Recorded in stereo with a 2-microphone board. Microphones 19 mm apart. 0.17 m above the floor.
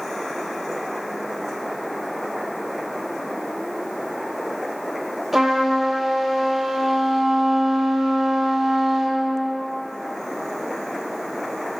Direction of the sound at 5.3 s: 15° right (ahead or behind).